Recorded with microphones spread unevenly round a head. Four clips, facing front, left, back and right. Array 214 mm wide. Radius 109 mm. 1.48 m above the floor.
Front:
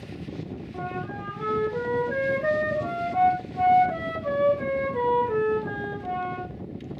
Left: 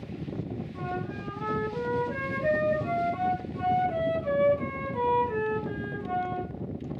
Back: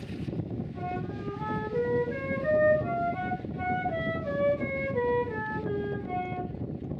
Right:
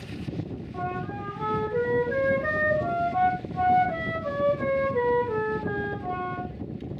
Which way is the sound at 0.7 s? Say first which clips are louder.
Right 4 dB, front 4 dB; 25° right.